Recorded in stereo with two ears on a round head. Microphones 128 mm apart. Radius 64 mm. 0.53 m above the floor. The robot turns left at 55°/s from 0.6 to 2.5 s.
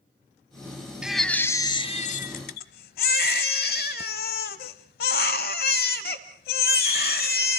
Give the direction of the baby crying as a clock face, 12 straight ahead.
6 o'clock.